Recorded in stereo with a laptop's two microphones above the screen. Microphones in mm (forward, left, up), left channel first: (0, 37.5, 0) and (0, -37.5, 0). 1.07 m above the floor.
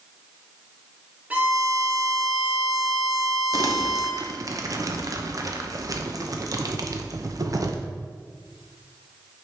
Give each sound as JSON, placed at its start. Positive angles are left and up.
{"t": 1.3, "sound": "a violin", "side_deg": -20, "distance_m": 0.8}
{"t": 3.5, "sound": "crumpling", "side_deg": -50, "distance_m": 0.7}